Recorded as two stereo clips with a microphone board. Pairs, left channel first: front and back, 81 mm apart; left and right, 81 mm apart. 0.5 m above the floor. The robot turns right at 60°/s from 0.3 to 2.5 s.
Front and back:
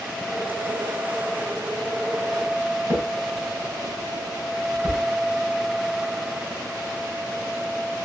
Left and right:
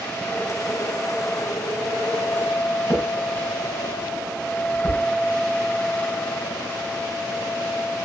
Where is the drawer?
140° left, 4 m.